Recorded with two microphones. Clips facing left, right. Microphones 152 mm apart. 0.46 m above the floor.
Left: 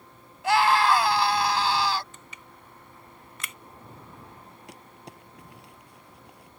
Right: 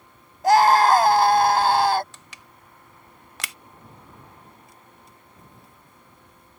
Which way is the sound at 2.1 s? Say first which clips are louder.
Left 1 dB; 80° right.